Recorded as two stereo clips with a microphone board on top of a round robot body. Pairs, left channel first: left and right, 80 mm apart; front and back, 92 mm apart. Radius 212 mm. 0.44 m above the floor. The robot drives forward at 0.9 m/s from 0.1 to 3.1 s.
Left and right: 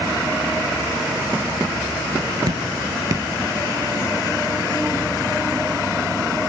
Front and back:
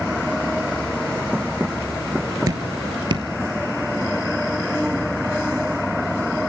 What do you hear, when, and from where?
2.5 s dripping: 125° right, 2 m; by 3.3 s 140° right, 2.5 m